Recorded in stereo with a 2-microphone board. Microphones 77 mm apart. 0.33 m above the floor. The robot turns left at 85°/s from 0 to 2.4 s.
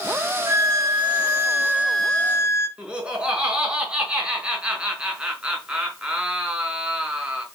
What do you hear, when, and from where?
0.5 s a violin: 50° right, 3 m; by 2.7 s 145° left, 3 m
2.8 s laughter: 15° right (ahead or behind), 4.5 m